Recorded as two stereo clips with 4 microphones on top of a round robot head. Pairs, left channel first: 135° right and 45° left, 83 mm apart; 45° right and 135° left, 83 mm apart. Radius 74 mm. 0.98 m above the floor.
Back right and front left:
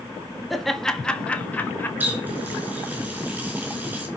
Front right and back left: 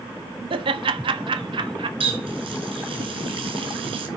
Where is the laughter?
135° left, 1.6 m; by 1.9 s 160° left, 2 m.